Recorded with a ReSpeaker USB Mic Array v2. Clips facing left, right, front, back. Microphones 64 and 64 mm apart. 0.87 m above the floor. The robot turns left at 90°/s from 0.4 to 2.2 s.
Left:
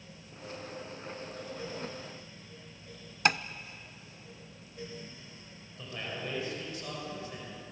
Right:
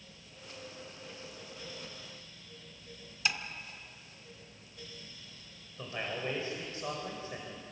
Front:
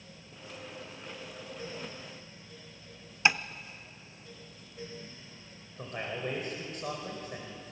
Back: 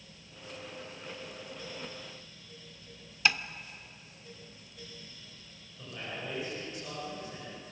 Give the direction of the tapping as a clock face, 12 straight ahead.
10 o'clock.